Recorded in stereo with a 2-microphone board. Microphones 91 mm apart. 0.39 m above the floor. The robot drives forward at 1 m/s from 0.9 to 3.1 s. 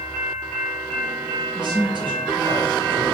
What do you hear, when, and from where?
1.6 s a man speaking: 50° right (ahead or behind), 2 m; by 3.0 s 55° right (ahead or behind), 1.9 m